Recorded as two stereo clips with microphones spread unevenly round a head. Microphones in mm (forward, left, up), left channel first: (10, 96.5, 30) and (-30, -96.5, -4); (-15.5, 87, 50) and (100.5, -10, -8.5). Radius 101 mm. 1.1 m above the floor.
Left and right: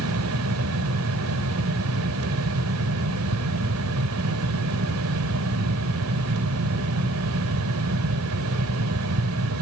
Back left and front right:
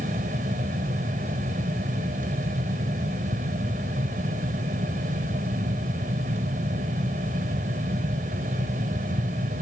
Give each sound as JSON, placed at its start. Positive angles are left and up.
{"t": 0.0, "sound": "a fan", "azimuth_deg": -105, "distance_m": 1.3}